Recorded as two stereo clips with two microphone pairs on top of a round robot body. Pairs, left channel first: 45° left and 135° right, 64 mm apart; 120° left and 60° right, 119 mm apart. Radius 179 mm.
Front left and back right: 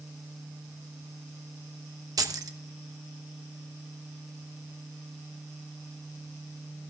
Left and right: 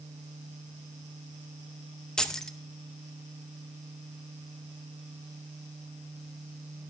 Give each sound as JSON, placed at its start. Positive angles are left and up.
{"t": 2.2, "sound": "keys jangling", "azimuth_deg": -160, "distance_m": 0.9}